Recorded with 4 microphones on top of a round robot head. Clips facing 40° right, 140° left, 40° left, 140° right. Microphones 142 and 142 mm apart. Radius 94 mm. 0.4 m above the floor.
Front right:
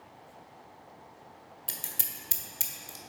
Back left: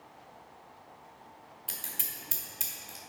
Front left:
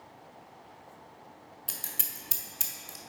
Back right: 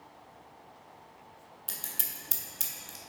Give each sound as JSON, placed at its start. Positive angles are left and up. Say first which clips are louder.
{"t": 1.7, "sound": "scissors", "louder": "even, even", "azimuth_deg": -40, "distance_m": 1.3}